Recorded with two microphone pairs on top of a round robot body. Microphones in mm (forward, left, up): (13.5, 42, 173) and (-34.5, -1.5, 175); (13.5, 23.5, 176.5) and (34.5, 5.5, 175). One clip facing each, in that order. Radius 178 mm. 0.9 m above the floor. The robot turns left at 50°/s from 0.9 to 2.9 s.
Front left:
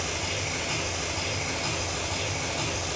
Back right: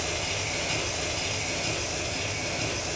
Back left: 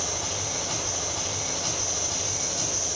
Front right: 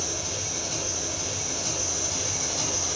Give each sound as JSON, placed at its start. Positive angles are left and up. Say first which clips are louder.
{"t": 0.0, "sound": "an engine running", "louder": "even, back left 1 dB", "azimuth_deg": 120, "distance_m": 1.6}